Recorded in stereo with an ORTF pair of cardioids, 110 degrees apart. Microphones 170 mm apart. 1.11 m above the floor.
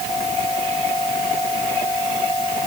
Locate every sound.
Only background noise.